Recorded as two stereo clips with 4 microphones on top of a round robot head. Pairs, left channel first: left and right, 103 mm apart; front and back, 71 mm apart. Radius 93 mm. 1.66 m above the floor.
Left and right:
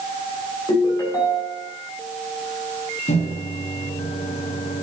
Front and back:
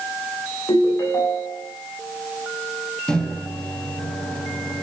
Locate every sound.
0.7 s a ringtone: 40° left, 9 m
3.1 s a microwave: 80° left, 3.5 m